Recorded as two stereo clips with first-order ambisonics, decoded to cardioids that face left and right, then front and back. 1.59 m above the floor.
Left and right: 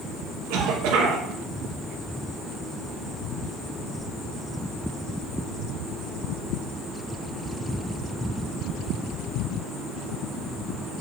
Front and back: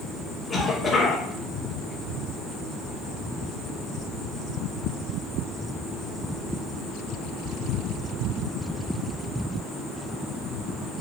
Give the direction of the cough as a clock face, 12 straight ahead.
2 o'clock.